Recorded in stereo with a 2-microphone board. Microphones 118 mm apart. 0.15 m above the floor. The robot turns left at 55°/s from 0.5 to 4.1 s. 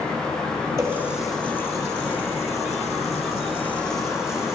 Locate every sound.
0.8 s a running tap: 25° right (ahead or behind), 2 m; by 4.5 s 20° left (ahead or behind), 2 m